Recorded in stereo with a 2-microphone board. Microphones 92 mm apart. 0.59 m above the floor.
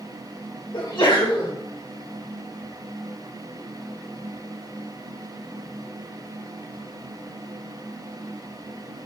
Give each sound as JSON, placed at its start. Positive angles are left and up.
{"t": 0.7, "sound": "a sneeze", "side_deg": 55, "distance_m": 1.5}